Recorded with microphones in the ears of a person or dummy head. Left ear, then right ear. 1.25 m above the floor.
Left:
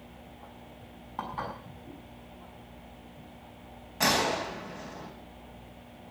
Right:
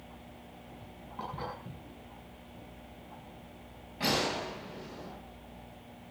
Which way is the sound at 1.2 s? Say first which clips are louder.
Left 4 dB; 40° left (ahead or behind).